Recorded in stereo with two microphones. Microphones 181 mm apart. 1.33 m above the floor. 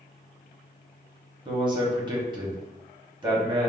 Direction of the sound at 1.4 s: 25° right (ahead or behind).